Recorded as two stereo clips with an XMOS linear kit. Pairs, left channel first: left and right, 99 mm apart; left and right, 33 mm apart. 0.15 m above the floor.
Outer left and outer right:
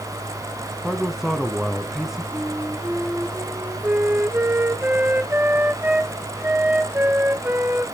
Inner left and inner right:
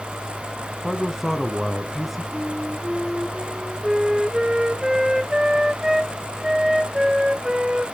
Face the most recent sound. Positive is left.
turn(degrees=-20)  # may be behind; listen again after turning